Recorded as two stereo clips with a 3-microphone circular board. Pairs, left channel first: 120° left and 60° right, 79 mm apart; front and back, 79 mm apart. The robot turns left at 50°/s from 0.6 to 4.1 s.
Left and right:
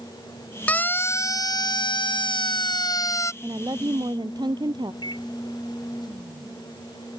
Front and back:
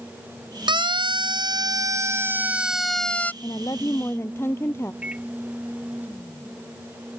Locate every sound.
0.7 s a siren: 170° right; by 3.3 s 70° left
3.4 s a woman speaking: 25° right; by 4.9 s 55° right
5.0 s a microwave: 105° left